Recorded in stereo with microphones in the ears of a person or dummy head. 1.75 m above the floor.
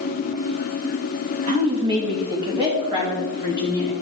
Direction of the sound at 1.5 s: 40° right (ahead or behind).